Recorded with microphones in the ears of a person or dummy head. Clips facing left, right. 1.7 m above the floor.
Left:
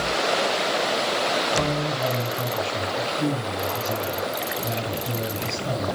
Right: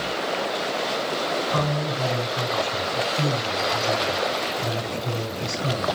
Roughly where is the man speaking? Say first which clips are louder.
Left 1 dB; right.